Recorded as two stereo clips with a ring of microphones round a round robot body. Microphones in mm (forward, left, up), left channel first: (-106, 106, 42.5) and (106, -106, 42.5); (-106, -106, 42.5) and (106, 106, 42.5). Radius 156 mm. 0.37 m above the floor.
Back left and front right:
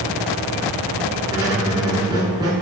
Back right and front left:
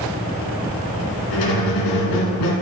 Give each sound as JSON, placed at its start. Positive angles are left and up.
{"t": 1.3, "sound": "a squeak", "azimuth_deg": -120, "distance_m": 1.9}